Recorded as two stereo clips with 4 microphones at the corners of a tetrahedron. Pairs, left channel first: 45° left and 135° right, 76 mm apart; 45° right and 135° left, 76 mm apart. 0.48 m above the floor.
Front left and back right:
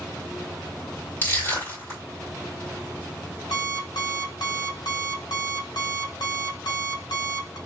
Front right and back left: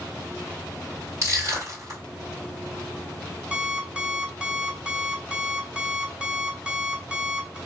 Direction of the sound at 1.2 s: 105° left.